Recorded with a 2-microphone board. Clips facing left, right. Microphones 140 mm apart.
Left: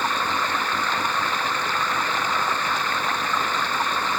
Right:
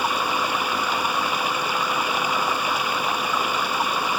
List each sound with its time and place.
0.0 s running water: 10° right (ahead or behind)